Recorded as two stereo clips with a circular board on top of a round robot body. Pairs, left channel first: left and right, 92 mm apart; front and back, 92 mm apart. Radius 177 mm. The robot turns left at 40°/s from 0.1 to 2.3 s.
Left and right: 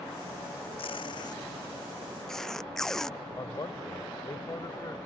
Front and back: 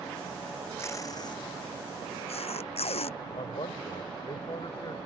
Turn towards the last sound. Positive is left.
turn(degrees=35)